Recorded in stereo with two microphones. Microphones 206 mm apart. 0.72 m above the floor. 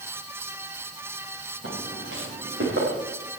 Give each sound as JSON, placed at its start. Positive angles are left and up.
{"t": 1.6, "sound": "footsteps", "side_deg": -80, "distance_m": 7.0}